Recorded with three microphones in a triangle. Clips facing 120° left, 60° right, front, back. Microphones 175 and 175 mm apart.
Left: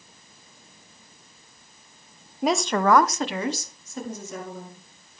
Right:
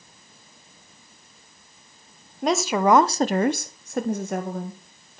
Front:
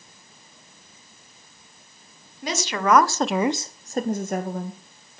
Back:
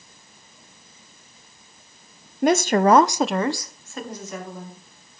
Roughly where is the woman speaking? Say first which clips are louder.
Right 1 dB, back 8 dB; behind right.